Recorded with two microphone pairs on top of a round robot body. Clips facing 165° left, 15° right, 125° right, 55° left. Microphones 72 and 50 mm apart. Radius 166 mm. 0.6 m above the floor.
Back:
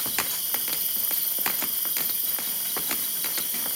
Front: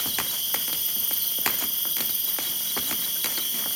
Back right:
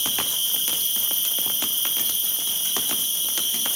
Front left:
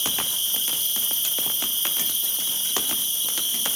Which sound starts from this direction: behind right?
An insect, at 0.0 s.